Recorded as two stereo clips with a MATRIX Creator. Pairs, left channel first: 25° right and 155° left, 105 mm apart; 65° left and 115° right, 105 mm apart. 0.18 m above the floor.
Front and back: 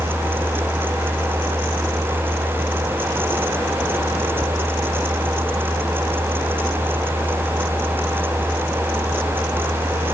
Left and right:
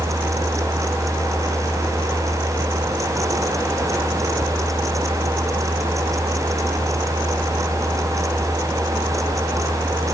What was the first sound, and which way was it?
Only background noise.